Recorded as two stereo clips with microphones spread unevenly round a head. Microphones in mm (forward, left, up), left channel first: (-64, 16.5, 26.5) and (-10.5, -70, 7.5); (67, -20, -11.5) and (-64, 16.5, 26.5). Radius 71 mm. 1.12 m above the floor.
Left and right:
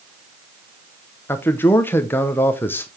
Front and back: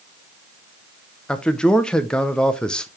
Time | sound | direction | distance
1.3 | a man speaking | 45° left | 0.8 m